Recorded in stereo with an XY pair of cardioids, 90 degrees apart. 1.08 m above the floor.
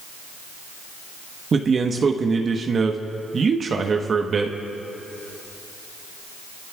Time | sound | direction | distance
1.5 | a man speaking | 50° right | 1.1 m